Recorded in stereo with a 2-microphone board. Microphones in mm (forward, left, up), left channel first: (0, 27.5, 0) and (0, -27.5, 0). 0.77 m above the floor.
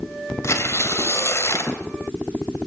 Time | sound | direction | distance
0.4 | tearing paper | 60° left (ahead or behind) | 3 m